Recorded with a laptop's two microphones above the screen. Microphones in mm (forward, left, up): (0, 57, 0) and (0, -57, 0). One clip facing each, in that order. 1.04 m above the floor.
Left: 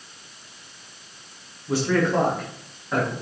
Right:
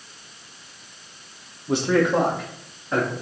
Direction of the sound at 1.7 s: 25° right (ahead or behind).